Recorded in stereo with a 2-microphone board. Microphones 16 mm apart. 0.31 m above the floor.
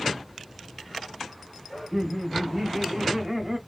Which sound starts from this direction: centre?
Laughter, at 1.7 s.